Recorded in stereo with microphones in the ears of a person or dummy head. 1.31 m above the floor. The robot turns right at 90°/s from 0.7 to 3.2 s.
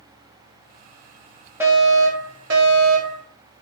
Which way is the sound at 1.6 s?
170° right.